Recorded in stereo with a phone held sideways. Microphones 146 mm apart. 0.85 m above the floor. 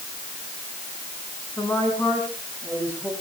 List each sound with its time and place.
1.6 s a woman speaking: 15° left (ahead or behind), 7.5 m